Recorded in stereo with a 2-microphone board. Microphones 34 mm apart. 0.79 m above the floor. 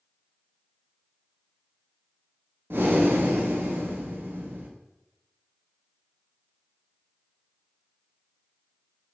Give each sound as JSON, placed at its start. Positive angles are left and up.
{"t": 2.7, "sound": "breathing", "side_deg": -65, "distance_m": 0.5}